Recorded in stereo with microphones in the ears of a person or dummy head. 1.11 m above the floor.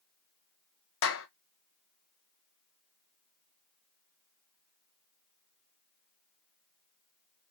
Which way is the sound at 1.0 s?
60° left (ahead or behind).